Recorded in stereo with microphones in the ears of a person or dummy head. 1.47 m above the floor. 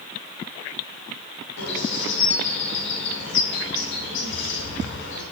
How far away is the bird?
About 6.5 m.